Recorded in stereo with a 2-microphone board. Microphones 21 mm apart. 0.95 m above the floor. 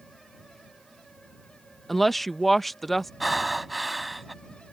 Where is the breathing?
Centre (ahead or behind).